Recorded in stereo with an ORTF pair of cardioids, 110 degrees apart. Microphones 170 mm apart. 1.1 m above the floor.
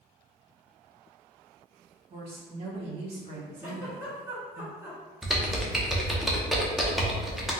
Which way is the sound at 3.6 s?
15° right.